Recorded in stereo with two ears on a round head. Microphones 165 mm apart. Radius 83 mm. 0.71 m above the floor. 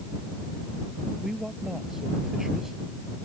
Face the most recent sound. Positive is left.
turn(degrees=0)  # may be behind; listen again after turning